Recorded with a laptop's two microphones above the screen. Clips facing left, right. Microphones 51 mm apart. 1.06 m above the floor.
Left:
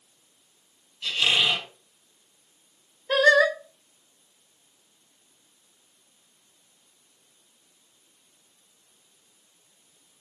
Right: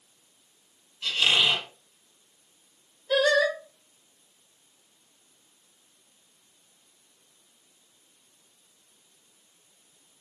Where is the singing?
50° left (ahead or behind), 2 m.